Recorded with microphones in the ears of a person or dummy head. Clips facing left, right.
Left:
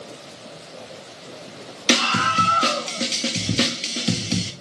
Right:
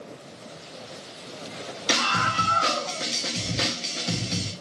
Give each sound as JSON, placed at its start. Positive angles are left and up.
{"t": 1.9, "sound": "a scream", "side_deg": 40, "distance_m": 0.6}